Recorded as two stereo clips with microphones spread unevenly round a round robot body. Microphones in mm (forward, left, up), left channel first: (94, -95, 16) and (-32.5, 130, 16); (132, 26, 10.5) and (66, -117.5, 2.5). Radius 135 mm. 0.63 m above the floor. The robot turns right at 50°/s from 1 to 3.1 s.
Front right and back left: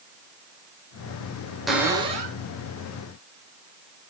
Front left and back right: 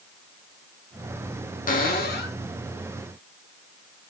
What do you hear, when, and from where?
1.7 s a cupboard door: 30° left, 1.8 m; by 2.3 s 65° left, 1.8 m